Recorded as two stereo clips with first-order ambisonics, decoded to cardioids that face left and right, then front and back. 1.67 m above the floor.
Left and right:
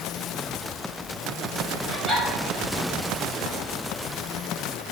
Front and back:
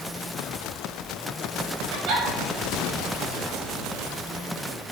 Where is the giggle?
175° right, 2.5 m.